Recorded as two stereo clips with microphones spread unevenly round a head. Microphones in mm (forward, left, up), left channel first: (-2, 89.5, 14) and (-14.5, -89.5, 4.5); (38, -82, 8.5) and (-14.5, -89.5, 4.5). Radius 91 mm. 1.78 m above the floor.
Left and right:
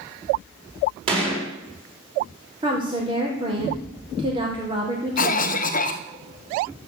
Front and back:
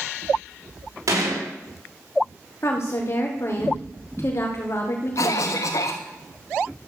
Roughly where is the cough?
Ahead left.